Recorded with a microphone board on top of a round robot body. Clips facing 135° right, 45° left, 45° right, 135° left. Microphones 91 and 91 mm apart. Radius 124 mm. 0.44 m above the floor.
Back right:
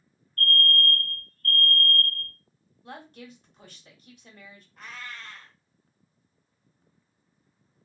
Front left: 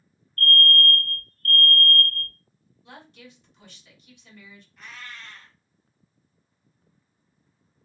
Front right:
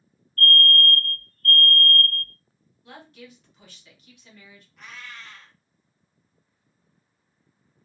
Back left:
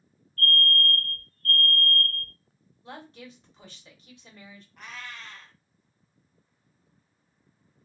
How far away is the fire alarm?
About 1.6 m.